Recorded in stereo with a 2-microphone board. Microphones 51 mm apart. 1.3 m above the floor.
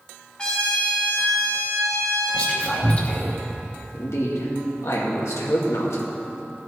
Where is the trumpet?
20° left (ahead or behind), 2 m.